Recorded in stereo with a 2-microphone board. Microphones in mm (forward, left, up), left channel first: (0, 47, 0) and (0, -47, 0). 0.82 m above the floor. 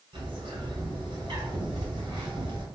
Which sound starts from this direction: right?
A bird, at 0.1 s.